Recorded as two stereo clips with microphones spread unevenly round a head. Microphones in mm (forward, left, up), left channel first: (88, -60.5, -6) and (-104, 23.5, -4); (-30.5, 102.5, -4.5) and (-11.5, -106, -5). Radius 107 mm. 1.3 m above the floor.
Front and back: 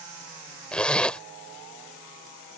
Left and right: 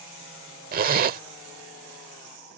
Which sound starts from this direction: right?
A zipper, at 0.7 s.